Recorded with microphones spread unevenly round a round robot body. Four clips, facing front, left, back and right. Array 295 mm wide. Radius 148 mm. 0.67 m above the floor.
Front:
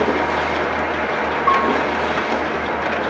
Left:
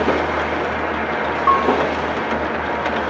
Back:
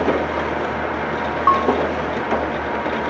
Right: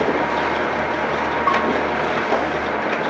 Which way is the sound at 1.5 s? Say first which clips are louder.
Left 5 dB, back 1 dB; straight behind.